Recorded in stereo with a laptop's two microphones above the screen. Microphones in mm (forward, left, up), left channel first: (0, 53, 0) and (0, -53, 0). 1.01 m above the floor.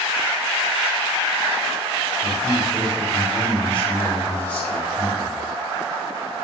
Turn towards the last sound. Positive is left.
turn(degrees=30)  # may be behind; listen again after turning